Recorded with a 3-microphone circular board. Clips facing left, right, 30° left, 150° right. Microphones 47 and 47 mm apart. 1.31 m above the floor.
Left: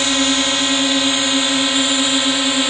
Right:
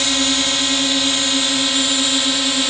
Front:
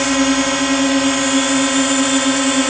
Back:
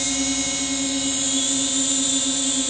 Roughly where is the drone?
Ahead.